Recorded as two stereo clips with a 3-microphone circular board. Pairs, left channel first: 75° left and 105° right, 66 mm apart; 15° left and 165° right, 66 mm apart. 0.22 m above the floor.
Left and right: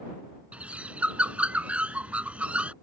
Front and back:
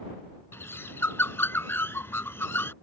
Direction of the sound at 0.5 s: 35° right.